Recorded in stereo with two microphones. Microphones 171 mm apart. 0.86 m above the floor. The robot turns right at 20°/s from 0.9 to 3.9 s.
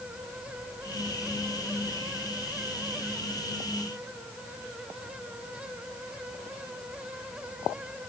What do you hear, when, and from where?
Only background noise.